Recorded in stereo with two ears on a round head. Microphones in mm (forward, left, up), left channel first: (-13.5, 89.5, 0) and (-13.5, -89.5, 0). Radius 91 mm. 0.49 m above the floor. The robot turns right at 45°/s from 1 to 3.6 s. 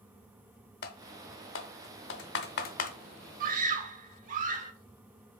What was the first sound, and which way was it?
Typing on a keyboard, 45° left (ahead or behind).